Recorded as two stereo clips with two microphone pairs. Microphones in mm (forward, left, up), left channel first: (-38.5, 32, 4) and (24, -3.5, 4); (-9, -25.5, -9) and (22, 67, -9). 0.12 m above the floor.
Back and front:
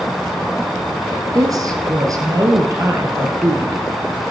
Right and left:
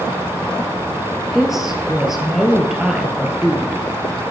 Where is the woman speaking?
15° right, 2.5 m.